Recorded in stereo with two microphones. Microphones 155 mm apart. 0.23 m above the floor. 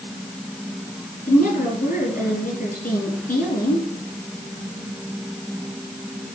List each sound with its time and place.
1.3 s a woman speaking: 60° left (ahead or behind), 5 m